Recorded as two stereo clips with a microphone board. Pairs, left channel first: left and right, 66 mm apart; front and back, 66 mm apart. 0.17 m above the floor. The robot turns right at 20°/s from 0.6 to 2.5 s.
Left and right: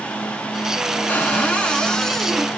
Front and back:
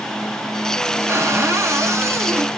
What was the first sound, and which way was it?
A cupboard door, 150° left.